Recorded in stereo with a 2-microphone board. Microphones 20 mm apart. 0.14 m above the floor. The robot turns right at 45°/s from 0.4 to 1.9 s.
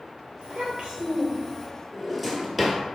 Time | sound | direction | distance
0.4 | a child speaking | 70° right | 1.8 m
1.9 | a drawer | 5° right (ahead or behind) | 1.0 m